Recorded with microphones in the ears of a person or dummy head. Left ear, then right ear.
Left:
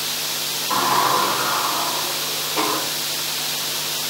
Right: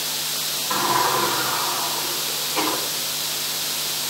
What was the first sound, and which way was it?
A sliding door, 5° right (ahead or behind).